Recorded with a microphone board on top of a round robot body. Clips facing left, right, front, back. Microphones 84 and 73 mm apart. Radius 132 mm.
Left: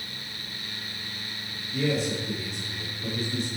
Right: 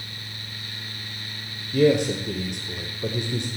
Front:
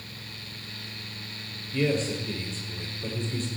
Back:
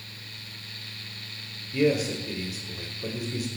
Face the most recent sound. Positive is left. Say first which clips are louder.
# right 8 dB, back 3 dB
turn(degrees=-100)